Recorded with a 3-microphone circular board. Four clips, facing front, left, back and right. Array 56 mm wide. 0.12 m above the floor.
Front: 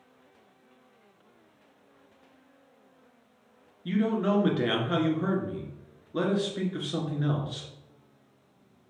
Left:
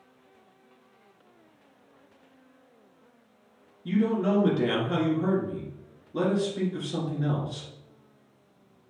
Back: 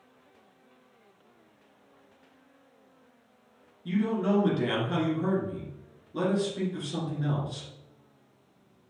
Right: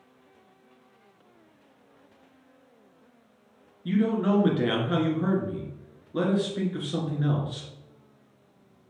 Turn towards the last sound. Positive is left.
turn(degrees=-30)